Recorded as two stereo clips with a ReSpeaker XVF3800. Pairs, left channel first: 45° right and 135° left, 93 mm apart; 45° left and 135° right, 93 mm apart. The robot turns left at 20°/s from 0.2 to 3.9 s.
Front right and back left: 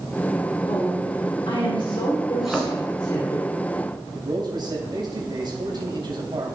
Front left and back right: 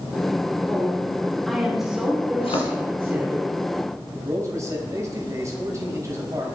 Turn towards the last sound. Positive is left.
turn(degrees=170)